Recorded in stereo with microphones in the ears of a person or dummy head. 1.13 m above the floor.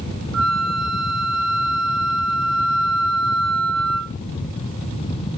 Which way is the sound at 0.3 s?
80° right.